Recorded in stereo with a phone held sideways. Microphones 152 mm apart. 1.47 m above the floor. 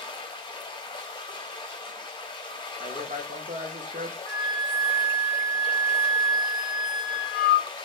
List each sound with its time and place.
0.0 s running water: 30° left (ahead or behind), 0.7 m
2.8 s a man speaking: 60° right (ahead or behind), 0.7 m
4.3 s a flute: 5° right (ahead or behind), 1.1 m